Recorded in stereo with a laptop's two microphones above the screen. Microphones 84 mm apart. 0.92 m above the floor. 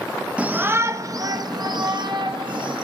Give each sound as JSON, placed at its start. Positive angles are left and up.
{"t": 0.4, "sound": "a shout", "side_deg": -15, "distance_m": 0.7}